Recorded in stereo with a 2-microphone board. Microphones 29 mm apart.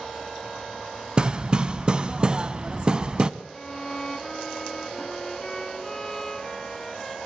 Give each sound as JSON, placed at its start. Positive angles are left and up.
{"t": 1.2, "sound": "hammering", "side_deg": -30, "distance_m": 0.7}
{"t": 3.5, "sound": "a violin", "side_deg": 15, "distance_m": 0.6}